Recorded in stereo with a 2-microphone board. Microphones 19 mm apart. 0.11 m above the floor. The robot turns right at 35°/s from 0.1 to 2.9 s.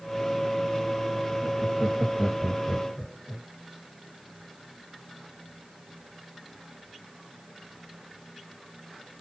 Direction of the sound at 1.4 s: 20° right (ahead or behind).